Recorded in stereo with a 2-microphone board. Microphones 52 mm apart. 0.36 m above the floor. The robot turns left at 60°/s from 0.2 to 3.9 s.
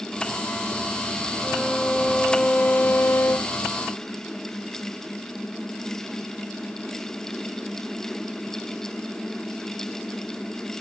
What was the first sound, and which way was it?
A violin, 140° right.